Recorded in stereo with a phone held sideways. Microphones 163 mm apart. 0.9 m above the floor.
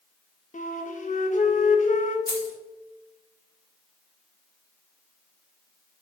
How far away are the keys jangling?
About 1.1 m.